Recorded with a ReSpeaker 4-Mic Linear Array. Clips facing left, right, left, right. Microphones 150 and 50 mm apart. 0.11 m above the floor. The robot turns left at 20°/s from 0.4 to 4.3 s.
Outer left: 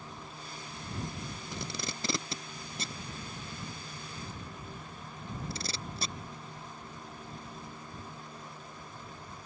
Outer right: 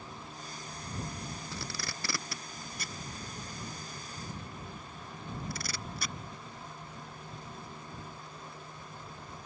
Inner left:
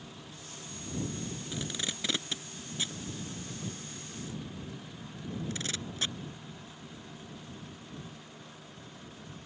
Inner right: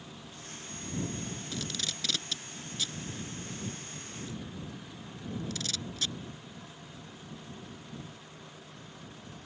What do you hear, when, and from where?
1.5 s tape being pulled: 20° left (ahead or behind); by 6.2 s 30° left (ahead or behind)